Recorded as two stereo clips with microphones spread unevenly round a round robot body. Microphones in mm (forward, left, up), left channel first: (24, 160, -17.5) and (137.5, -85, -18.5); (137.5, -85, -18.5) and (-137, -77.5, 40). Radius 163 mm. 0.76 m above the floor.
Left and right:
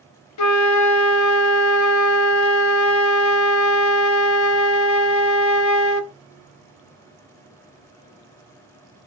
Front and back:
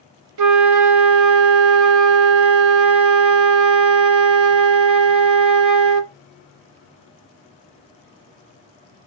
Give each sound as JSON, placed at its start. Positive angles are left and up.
{"t": 0.4, "sound": "a flute", "azimuth_deg": 140, "distance_m": 0.5}